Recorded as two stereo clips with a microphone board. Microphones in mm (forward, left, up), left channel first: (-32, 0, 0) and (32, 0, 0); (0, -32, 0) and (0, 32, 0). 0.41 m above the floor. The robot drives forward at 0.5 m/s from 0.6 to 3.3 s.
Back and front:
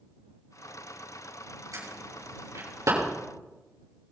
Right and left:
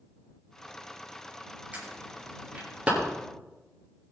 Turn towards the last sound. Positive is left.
turn(degrees=25)